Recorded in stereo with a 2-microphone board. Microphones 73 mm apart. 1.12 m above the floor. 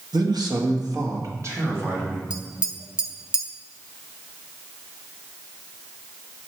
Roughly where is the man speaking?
Right.